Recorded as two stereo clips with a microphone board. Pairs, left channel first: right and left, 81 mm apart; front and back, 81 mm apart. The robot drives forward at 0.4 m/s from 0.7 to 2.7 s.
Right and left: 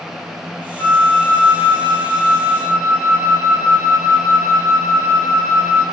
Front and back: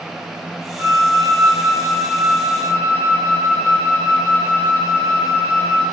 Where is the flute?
150° right, 1.7 m; by 5.8 s 160° right, 2.5 m.